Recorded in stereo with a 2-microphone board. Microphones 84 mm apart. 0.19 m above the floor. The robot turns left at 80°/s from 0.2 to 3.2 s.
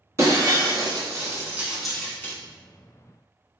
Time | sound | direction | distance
0.2 | breaking glass | 35° right (ahead or behind) | 0.6 m